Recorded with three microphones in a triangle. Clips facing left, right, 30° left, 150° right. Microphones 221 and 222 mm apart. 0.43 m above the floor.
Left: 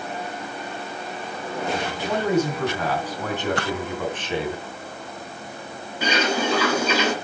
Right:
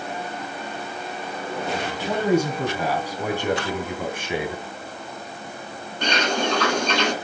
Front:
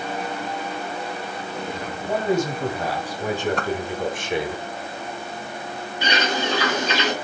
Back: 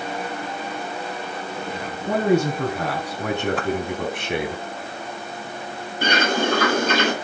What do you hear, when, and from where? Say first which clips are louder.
2.1 s a man speaking: right 1 dB, back 3 dB; 170° right, 5 m
3.6 s a whoosh: left 1 dB, back 2 dB; 125° left, 0.8 m
6.0 s a bird: left 1 dB, back 3 dB; 175° left, 2.5 m